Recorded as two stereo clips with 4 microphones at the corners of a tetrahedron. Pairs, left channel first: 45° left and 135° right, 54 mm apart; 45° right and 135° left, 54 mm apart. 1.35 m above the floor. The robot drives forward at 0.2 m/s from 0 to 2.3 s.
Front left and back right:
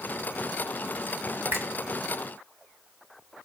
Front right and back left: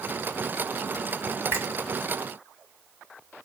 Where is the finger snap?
Straight behind, 1.9 m.